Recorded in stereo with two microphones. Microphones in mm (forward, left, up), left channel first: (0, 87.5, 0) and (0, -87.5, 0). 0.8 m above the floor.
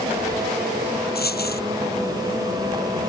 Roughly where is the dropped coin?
Left.